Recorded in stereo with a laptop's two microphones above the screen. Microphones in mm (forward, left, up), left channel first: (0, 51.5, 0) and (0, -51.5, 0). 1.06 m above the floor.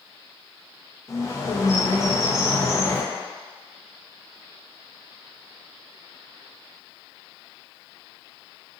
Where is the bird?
30° left (ahead or behind), 0.6 m.